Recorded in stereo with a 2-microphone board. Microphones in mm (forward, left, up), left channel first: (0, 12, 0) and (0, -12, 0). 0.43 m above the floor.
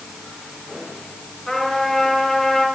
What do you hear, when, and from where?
1.5 s a trumpet: centre (ahead or behind), 5 m